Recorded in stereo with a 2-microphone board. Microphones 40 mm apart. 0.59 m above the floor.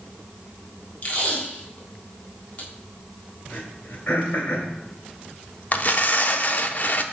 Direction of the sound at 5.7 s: 45° left (ahead or behind).